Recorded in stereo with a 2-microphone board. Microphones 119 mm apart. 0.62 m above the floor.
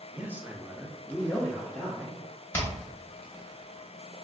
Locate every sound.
0.1 s a man speaking: 15° right (ahead or behind), 0.8 m; by 2.2 s 10° left (ahead or behind), 1.2 m
2.5 s hammering: 20° left (ahead or behind), 1.1 m